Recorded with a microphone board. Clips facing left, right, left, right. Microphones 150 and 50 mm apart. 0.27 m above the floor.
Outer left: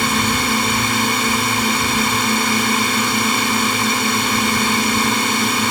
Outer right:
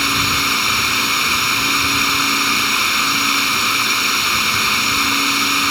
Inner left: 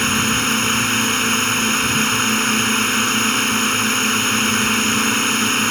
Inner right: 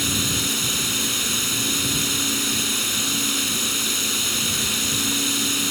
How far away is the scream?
No scream in this recording.